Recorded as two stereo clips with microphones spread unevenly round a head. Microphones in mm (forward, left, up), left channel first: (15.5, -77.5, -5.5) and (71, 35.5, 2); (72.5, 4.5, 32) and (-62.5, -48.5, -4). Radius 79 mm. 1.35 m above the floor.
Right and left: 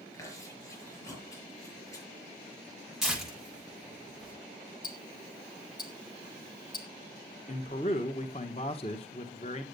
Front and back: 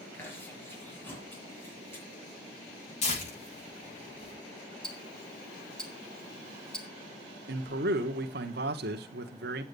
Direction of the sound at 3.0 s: 25° right.